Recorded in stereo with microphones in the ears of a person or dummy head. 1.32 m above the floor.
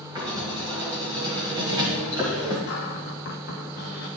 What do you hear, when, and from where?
0.1 s writing: 15° right (ahead or behind), 1.8 m
2.7 s a cupboard door: 50° left (ahead or behind), 1.2 m